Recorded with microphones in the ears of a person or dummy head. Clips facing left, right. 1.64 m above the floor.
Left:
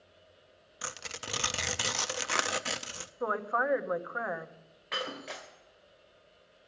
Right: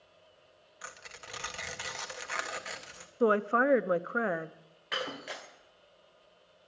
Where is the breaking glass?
5° right (ahead or behind), 2.0 m.